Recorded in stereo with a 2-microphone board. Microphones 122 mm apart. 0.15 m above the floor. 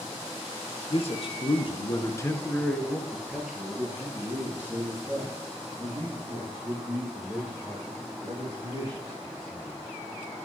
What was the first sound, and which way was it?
A man speaking, 55° left (ahead or behind).